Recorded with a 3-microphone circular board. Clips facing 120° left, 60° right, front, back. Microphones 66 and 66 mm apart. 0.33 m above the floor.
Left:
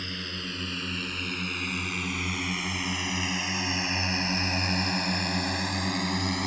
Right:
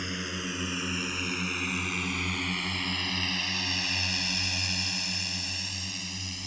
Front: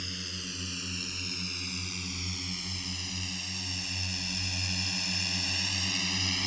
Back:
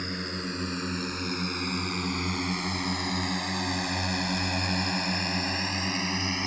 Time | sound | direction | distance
0.0 | a drone | 135° right | ?